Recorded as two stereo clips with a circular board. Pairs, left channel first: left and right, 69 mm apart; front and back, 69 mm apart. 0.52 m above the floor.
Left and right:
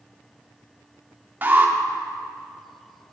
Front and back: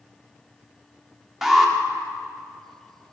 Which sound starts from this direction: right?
An alarm, at 1.4 s.